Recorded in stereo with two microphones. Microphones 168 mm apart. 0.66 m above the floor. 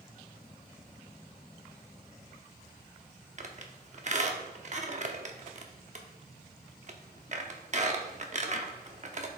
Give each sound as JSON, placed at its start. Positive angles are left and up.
{"t": 3.4, "sound": "a squeak", "side_deg": -45, "distance_m": 0.8}